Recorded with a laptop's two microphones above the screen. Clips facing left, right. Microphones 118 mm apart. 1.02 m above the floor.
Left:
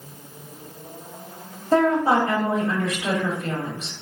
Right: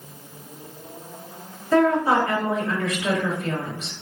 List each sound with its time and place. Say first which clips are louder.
1.7 s a woman speaking: even; 30° left (ahead or behind), 1.1 m